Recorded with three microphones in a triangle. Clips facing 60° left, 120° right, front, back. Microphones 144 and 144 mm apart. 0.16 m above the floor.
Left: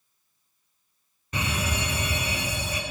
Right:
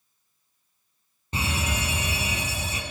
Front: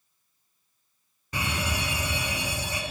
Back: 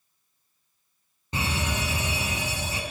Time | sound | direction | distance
1.3 | a fire alarm | 145° right | 2.5 m